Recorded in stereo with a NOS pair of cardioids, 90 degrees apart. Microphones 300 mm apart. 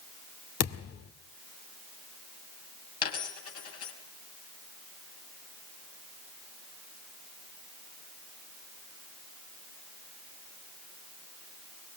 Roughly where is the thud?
Ahead left.